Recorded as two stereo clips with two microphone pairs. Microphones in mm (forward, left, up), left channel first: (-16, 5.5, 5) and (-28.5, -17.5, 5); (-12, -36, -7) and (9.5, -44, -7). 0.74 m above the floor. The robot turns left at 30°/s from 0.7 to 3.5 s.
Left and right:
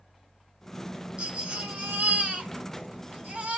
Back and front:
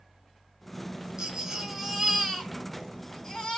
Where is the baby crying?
75° right, 1.6 m; by 3.6 s 145° right, 1.6 m.